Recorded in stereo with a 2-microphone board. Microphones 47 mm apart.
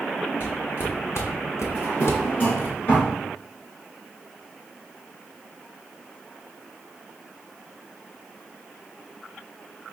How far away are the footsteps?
About 1.4 m.